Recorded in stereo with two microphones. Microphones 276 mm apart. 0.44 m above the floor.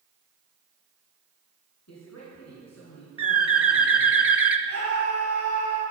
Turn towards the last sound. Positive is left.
turn(degrees=80)